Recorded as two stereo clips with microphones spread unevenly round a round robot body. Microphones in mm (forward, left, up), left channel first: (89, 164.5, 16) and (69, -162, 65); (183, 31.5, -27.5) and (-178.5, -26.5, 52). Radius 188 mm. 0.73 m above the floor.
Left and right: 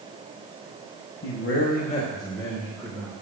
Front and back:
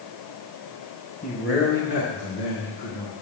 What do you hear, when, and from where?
1.2 s a man speaking: 65° left, 1.5 m; by 3.1 s straight ahead, 2.5 m